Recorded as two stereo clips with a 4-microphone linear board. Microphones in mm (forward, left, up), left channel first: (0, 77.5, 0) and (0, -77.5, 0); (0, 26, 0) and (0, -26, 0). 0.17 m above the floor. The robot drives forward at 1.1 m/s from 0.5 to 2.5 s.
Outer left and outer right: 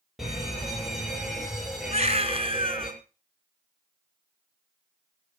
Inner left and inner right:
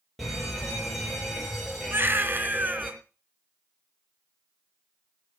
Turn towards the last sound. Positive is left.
turn(degrees=-40)  # may be behind; listen again after turning